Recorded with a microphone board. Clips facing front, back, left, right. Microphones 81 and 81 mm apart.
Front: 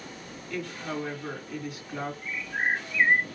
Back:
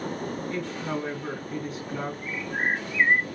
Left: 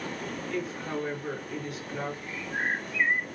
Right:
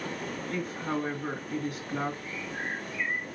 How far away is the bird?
About 1.0 m.